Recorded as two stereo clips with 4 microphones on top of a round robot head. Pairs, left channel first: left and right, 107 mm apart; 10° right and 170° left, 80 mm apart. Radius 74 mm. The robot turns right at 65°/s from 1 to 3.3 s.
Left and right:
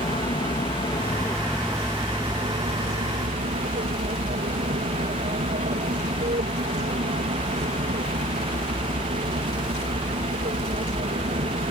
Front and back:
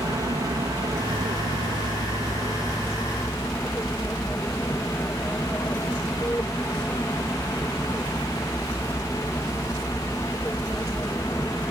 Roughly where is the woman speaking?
No woman speaking in this recording.